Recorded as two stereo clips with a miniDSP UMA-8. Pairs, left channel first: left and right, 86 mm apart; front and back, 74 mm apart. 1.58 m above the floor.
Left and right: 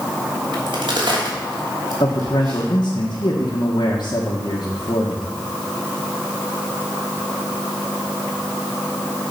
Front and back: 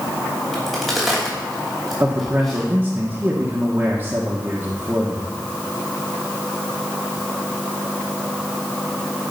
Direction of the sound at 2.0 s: 115° left.